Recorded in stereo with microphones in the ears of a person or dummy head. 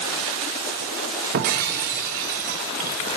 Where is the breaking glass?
50° right (ahead or behind), 2 m.